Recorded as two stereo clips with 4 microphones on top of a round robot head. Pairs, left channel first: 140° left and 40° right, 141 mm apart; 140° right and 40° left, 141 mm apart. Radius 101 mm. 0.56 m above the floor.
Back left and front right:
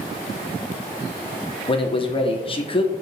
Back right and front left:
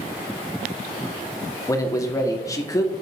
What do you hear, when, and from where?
1.7 s a man speaking: 165° left, 1.2 m